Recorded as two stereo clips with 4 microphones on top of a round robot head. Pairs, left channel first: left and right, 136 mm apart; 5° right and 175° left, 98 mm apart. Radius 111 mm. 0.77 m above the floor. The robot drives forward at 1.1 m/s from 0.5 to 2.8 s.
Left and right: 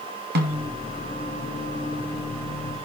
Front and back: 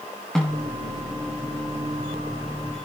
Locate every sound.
0.3 s a snare drum: 90° right, 1.5 m; by 0.7 s 100° right, 1.6 m